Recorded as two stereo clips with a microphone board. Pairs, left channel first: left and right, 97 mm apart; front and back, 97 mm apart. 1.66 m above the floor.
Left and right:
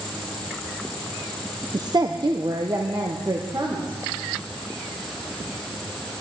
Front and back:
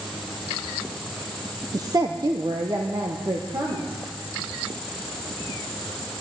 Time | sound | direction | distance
1.7 | a woman speaking | 130° right | 0.7 m